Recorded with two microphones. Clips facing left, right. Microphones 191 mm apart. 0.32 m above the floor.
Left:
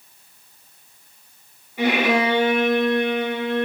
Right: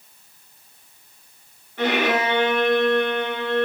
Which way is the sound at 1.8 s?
10° left (ahead or behind).